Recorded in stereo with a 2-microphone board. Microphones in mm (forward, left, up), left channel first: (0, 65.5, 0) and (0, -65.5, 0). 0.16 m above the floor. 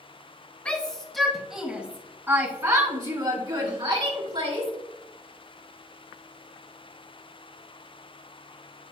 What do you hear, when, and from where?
0.7 s a shout: 10° left (ahead or behind), 1.8 m; by 4.7 s 50° right (ahead or behind), 2 m